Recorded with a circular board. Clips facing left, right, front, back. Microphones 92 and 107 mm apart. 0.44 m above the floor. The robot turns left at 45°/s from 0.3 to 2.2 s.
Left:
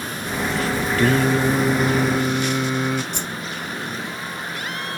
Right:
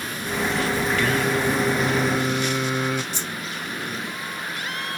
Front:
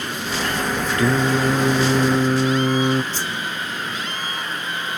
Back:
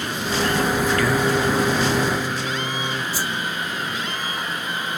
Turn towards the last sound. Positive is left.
turn(degrees=100)